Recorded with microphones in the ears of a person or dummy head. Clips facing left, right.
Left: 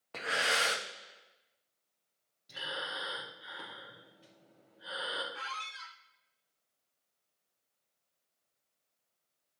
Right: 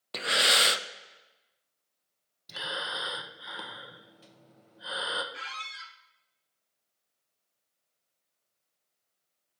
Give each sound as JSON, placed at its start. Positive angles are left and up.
{"t": 0.1, "sound": "breathing", "side_deg": -45, "distance_m": 0.5}
{"t": 2.5, "sound": "breathing", "side_deg": -65, "distance_m": 1.0}
{"t": 5.3, "sound": "a squeak", "side_deg": -35, "distance_m": 1.2}